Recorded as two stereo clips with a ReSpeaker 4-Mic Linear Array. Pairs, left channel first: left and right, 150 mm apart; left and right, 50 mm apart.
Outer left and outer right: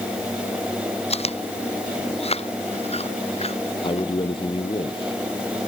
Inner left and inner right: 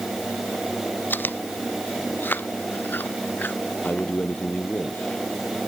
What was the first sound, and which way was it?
Chewing, 45° left (ahead or behind).